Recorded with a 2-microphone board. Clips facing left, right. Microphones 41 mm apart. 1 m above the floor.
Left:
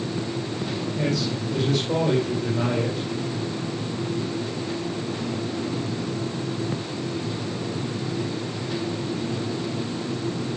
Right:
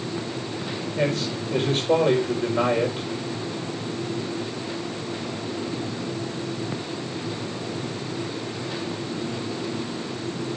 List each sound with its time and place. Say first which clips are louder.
1.0 s a man speaking: right 2 dB; 40° right (ahead or behind), 4.5 m